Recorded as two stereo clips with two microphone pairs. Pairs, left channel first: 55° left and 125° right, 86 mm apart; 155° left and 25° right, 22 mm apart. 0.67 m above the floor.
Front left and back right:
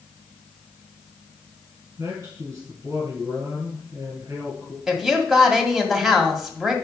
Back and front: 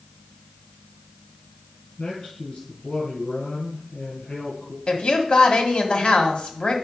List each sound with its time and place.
2.0 s a man speaking: 175° right, 6 m
4.9 s a woman speaking: 155° left, 1.7 m